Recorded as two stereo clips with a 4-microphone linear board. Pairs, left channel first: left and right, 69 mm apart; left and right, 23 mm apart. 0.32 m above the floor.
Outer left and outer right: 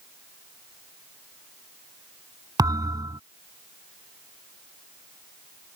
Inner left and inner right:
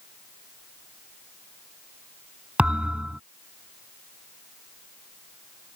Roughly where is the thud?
Right.